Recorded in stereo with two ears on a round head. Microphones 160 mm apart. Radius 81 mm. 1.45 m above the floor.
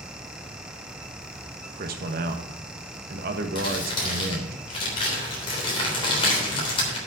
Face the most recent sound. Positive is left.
turn(degrees=30)  # may be behind; listen again after turning